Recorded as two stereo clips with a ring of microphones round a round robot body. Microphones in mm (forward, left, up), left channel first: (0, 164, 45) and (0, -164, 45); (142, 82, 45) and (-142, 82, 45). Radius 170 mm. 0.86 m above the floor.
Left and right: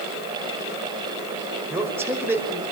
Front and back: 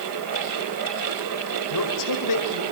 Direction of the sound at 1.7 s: 5° right.